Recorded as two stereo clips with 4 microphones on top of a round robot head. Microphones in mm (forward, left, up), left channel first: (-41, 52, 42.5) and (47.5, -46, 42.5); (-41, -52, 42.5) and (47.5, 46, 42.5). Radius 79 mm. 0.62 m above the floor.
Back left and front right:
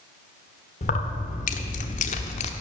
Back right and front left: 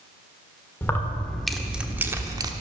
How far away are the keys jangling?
About 1.6 m.